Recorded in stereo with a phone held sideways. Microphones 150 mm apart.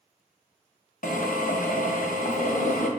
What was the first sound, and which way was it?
A drill, 65° left (ahead or behind).